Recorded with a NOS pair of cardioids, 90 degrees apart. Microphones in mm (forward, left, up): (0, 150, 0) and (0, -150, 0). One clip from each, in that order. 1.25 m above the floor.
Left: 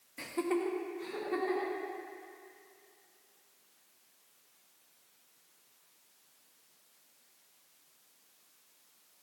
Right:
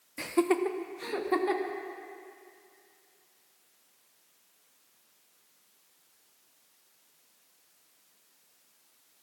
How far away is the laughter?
About 0.8 m.